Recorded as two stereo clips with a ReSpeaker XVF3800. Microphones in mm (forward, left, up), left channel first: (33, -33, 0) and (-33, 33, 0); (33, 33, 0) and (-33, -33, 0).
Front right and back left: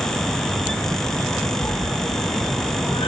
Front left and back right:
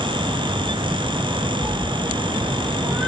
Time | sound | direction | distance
1.6 | a cat meowing | 80° right | 2.5 m